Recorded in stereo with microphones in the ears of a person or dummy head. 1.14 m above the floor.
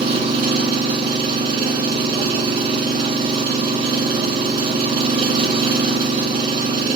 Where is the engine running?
30° right (ahead or behind), 1.0 m.